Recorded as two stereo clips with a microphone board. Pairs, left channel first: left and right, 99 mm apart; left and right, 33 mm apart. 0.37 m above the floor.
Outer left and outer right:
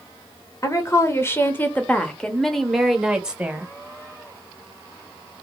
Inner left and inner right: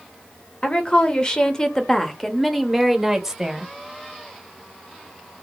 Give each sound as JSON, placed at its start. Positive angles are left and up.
{"t": 0.6, "sound": "a woman speaking", "side_deg": 30, "distance_m": 1.2}